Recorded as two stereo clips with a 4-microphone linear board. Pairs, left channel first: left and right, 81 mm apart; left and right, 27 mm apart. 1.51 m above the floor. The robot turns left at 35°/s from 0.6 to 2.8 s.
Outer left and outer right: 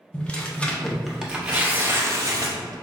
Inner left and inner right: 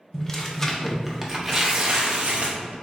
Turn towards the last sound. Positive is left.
turn(degrees=-60)